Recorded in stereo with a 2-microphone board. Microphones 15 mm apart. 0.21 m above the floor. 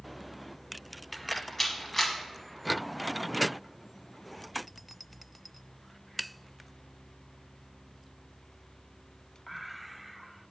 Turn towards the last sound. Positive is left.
turn(degrees=20)  # may be behind; listen again after turning